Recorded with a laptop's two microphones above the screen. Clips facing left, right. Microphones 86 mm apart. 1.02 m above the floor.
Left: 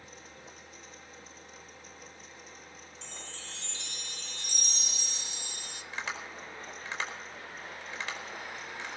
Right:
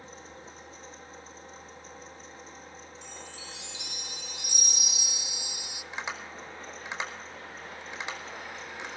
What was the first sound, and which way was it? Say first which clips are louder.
A fan: right 4 dB; 35° right (ahead or behind).